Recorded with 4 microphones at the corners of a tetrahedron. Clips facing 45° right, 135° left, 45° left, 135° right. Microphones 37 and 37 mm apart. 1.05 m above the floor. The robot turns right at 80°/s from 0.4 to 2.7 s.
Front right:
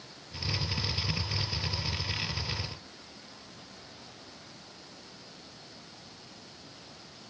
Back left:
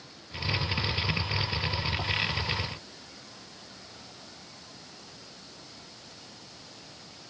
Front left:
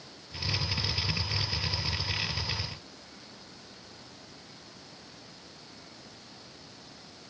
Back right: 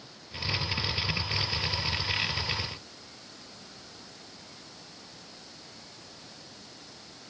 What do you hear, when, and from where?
Only background noise.